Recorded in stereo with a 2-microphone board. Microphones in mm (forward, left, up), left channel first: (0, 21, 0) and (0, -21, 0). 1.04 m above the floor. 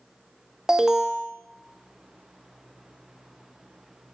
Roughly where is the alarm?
Centre.